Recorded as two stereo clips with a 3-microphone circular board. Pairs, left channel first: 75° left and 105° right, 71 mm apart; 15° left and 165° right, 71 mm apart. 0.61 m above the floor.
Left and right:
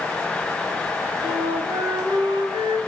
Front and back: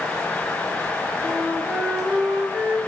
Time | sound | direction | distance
1.2 | a flute | 95° right | 4 m